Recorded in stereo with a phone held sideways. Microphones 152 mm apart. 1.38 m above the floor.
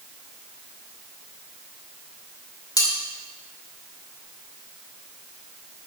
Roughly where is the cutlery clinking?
Left.